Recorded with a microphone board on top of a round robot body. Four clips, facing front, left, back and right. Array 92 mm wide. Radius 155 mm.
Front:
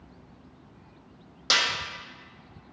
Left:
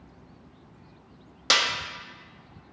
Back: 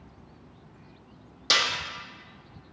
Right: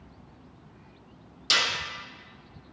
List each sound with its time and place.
1.5 s a snare drum: 85° left, 1.6 m